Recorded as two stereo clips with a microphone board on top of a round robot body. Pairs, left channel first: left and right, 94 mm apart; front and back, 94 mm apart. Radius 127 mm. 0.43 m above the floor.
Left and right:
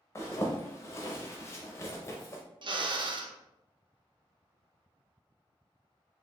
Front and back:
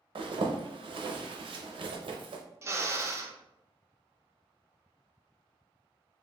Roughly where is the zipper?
Behind left.